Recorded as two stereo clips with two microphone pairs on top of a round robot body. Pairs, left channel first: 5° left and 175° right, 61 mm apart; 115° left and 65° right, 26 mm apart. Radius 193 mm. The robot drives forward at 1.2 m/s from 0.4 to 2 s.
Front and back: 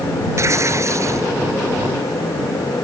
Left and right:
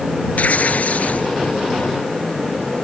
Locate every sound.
0.4 s tearing paper: 140° left